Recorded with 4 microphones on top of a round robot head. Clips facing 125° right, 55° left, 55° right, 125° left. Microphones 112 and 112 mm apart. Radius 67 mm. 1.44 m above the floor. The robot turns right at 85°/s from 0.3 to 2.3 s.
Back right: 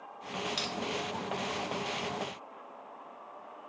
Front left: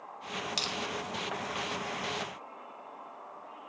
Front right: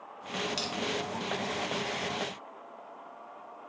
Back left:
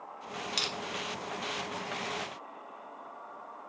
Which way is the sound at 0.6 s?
95° left.